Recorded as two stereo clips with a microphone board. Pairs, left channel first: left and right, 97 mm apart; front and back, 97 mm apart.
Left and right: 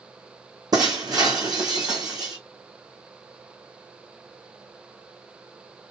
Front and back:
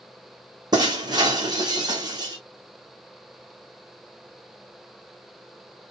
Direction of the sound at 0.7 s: 135° right.